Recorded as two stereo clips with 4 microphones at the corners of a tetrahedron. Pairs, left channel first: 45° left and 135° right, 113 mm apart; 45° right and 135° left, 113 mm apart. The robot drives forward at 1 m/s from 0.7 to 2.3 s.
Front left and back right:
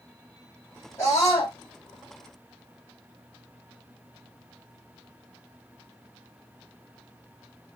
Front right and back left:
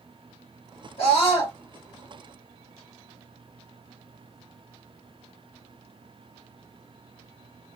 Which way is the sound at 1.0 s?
15° right.